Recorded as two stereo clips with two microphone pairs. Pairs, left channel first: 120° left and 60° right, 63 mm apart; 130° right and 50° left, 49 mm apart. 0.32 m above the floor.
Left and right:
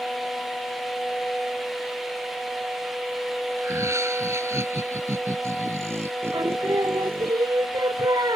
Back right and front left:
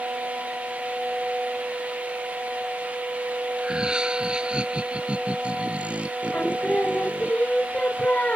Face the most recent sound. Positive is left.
turn(degrees=-70)